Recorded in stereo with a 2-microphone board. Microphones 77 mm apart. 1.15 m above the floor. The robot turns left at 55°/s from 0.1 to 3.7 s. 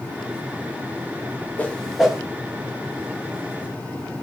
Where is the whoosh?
20° left (ahead or behind), 0.5 m; by 2.2 s 15° right (ahead or behind), 0.5 m.